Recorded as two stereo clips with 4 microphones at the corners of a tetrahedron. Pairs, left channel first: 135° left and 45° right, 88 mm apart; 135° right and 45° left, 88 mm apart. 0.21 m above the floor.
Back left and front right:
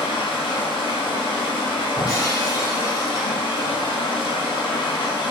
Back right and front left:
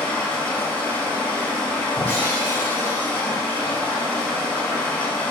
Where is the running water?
150° left, 1.1 m.